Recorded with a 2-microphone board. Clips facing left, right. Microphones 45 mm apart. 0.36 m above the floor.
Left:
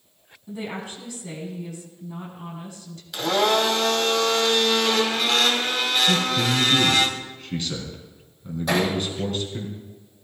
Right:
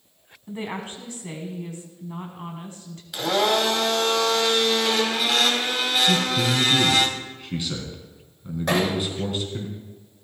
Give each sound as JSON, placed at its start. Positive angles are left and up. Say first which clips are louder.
{"t": 0.5, "sound": "a woman speaking", "louder": "right 1 dB", "side_deg": -35, "distance_m": 3.5}
{"t": 3.1, "sound": "a blender", "louder": "left 1 dB", "side_deg": -5, "distance_m": 2.5}
{"t": 6.1, "sound": "a man speaking", "louder": "even", "side_deg": -10, "distance_m": 4.0}
{"t": 8.7, "sound": "hammering", "louder": "even", "side_deg": -45, "distance_m": 7.0}